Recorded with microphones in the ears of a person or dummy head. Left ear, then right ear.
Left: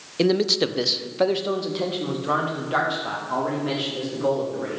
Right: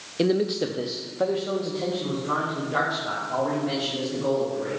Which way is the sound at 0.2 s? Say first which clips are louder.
Left 3 dB; 10° left (ahead or behind).